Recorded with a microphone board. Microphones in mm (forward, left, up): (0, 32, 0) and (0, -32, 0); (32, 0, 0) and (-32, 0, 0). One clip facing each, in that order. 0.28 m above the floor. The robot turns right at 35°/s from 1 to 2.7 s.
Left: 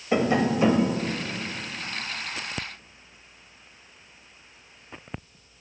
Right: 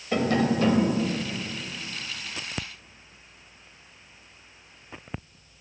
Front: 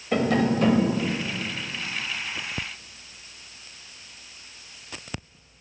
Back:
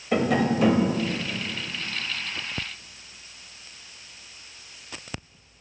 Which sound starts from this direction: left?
Tapping, at 0.1 s.